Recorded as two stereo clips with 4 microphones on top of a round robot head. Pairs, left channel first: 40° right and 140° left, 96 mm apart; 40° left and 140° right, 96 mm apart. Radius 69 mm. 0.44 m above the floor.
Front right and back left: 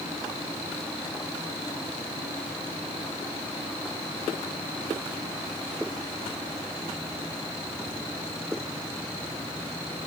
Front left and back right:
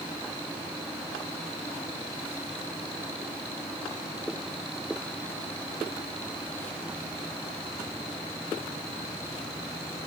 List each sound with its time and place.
Only background noise.